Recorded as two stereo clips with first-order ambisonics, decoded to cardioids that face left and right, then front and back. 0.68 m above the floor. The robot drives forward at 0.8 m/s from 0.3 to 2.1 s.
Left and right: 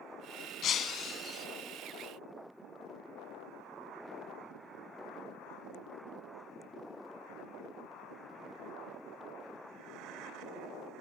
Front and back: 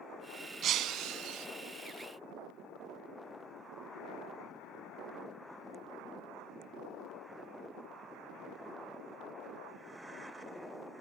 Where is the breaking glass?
135° left, 0.8 m; by 1.5 s 155° left, 1.3 m.